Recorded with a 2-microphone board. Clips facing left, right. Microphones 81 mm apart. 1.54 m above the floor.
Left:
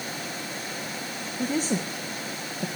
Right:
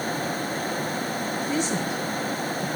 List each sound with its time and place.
1.4 s a woman speaking: 40° left (ahead or behind), 1.9 m